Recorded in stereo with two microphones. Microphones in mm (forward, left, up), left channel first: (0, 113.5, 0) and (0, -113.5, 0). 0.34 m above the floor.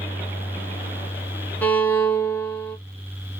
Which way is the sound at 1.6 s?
10° left (ahead or behind).